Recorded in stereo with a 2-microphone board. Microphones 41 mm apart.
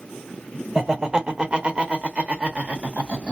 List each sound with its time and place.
0.8 s laughter: 15° right (ahead or behind), 1.1 m; by 3.3 s 30° right (ahead or behind), 1.3 m